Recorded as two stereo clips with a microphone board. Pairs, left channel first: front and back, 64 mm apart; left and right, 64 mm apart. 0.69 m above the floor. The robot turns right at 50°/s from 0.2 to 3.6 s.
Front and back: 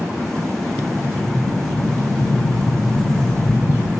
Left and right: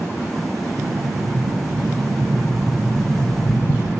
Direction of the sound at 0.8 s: 125° right.